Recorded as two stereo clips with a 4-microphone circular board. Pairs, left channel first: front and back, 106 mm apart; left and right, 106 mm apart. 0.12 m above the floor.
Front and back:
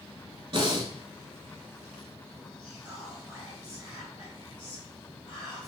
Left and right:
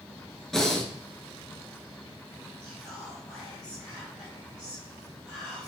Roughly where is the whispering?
Ahead.